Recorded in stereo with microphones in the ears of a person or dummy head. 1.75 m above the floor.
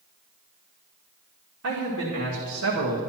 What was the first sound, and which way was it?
A man speaking, 75° right (ahead or behind).